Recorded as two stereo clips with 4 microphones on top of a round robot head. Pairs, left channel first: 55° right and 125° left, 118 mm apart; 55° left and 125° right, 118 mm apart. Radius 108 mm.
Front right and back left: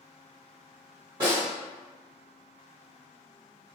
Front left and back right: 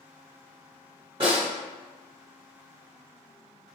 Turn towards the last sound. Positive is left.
turn(degrees=-175)